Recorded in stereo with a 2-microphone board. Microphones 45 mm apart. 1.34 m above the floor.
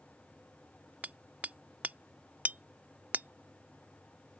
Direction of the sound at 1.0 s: 35° right (ahead or behind).